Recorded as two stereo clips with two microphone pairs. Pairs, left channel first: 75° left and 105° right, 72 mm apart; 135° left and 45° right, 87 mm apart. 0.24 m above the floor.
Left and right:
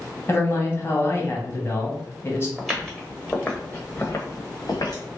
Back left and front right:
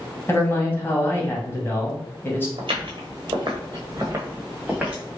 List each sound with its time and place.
0.3 s a man speaking: 95° left, 1.1 m
2.6 s footsteps: 25° right, 1.2 m; by 5.0 s 40° left, 1.3 m